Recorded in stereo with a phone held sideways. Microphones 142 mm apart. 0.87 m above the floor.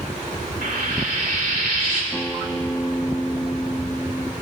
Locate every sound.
0.6 s frying: 80° right, 2 m
2.1 s a guitar: 10° left (ahead or behind), 0.7 m